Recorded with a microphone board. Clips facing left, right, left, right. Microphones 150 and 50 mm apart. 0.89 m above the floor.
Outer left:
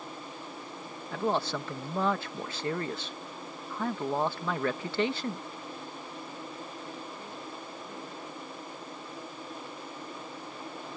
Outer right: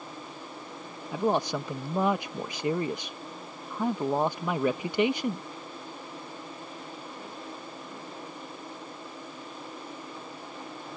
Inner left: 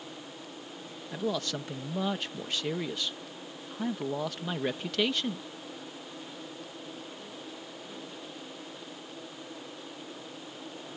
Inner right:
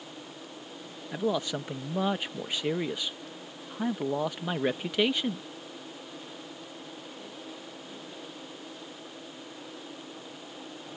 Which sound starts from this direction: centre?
A man speaking, at 1.1 s.